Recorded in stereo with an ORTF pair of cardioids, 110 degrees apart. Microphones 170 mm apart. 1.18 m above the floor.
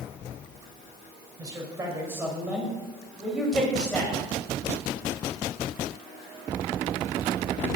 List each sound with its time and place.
1.4 s a man speaking: 25° right, 6 m; by 4.2 s 10° left, 7.5 m